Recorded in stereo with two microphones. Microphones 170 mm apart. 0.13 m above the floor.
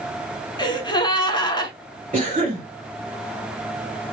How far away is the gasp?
About 0.7 m.